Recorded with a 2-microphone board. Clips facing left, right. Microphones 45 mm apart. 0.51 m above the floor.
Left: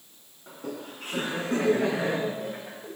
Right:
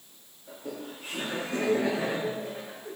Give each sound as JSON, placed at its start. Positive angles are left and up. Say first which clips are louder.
{"t": 0.5, "sound": "laughter", "louder": "left 2 dB", "side_deg": 70, "distance_m": 5.5}